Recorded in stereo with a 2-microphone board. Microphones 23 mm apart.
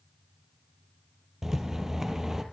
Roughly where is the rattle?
Right.